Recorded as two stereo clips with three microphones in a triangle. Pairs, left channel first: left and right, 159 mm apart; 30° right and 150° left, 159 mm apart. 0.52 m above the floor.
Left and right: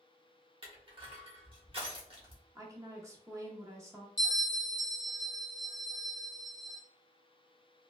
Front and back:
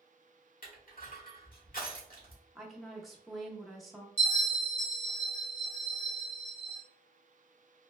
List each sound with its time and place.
0.6 s crushing: 35° right, 1.1 m
2.5 s a woman speaking: 120° right, 0.7 m
4.2 s a bell: 120° left, 1.1 m